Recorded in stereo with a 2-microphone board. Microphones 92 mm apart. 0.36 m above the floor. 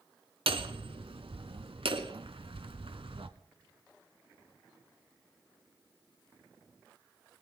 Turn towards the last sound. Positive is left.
turn(degrees=-75)  # may be behind; listen again after turning